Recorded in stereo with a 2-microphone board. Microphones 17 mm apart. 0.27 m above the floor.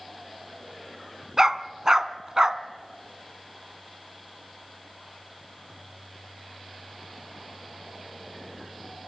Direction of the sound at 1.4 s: 35° right (ahead or behind).